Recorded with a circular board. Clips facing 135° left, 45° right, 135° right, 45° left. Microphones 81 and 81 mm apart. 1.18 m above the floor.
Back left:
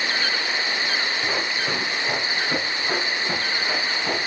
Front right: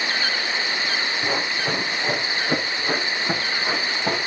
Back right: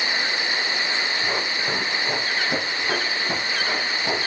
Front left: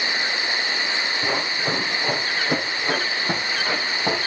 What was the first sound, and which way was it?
Running footsteps, 25° left.